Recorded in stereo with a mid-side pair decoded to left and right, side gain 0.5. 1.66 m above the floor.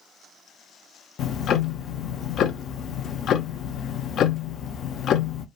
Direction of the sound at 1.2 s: 60° left.